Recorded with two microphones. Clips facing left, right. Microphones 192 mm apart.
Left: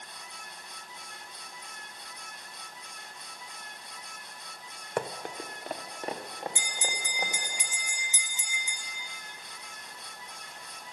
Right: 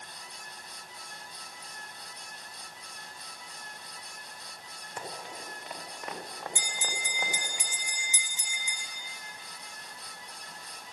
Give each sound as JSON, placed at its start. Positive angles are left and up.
{"t": 5.0, "sound": "running footsteps", "side_deg": 70, "distance_m": 1.2}
{"t": 6.5, "sound": "a bell", "side_deg": 20, "distance_m": 1.3}